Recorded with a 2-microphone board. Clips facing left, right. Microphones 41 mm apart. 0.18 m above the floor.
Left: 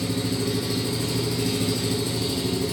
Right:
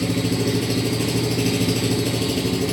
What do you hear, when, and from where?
0.0 s an engine running: 80° right, 1.0 m